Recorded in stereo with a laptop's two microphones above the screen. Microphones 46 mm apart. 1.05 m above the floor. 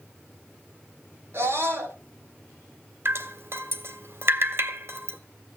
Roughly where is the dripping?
Right.